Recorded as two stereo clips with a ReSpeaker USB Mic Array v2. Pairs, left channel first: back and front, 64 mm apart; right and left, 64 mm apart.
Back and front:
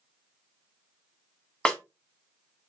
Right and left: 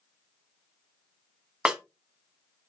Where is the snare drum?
135° left, 0.7 m.